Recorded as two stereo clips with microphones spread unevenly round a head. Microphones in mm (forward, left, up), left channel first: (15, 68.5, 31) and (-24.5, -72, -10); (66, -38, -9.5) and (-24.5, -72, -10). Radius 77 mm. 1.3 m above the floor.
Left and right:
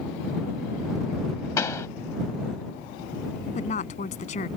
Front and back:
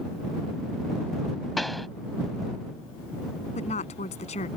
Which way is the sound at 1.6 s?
110° left.